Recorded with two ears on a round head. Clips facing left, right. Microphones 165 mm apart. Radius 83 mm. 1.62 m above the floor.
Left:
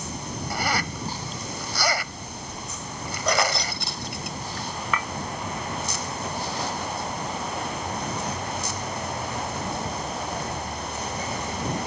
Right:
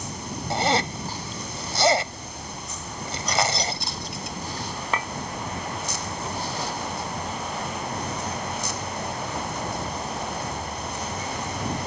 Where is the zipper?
25° right (ahead or behind).